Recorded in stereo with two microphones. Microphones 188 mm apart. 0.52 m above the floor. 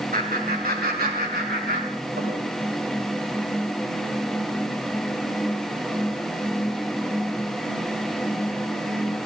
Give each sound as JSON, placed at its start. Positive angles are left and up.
{"t": 0.1, "sound": "laughter", "side_deg": -50, "distance_m": 2.0}